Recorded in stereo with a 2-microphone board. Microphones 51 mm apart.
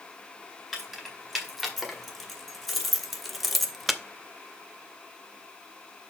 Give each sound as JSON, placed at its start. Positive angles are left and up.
{"t": 0.7, "sound": "keys jangling", "side_deg": 0, "distance_m": 2.5}